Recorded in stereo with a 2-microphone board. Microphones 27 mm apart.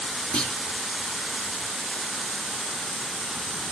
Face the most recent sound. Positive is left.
turn(degrees=40)  # may be behind; listen again after turning